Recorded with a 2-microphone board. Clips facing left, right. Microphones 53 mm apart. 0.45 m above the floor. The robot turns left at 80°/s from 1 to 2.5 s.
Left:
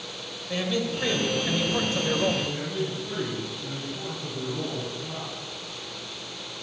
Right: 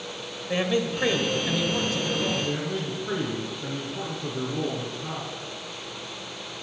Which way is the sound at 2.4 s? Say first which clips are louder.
Right 1 dB; 80° right.